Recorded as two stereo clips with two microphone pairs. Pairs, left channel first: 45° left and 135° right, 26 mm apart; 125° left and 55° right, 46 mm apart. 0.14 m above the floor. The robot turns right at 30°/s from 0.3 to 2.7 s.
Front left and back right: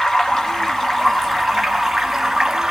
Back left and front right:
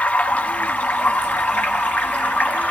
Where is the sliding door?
I don't hear a sliding door.